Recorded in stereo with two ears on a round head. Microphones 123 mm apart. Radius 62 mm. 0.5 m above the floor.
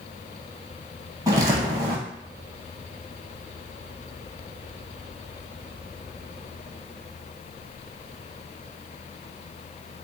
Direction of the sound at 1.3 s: 25° right (ahead or behind).